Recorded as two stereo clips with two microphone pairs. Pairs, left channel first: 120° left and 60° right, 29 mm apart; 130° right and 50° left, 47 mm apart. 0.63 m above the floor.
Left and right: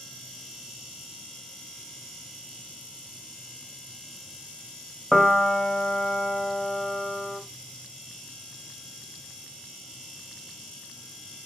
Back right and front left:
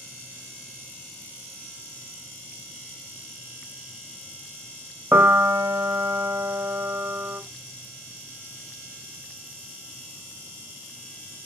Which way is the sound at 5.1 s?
45° left.